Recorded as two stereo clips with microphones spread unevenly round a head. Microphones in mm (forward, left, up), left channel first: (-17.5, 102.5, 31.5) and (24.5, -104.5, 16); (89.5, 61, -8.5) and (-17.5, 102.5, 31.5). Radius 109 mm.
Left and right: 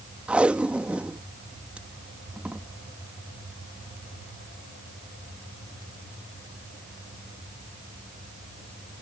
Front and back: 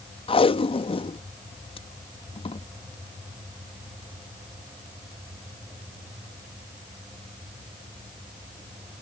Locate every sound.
0.3 s tape being pulled: 5° left